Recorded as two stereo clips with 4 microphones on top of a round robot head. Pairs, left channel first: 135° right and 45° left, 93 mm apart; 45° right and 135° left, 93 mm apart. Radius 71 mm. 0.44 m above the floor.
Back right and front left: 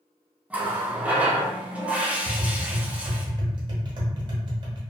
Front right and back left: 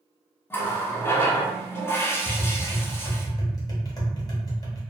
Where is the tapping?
5° left, 0.8 m.